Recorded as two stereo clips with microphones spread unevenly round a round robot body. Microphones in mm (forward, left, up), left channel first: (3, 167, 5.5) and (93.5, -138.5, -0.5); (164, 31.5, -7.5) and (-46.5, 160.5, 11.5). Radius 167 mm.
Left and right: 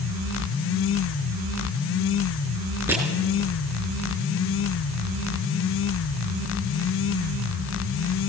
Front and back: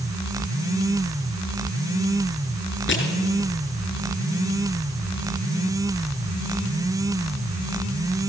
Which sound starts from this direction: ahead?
Crushing, at 2.9 s.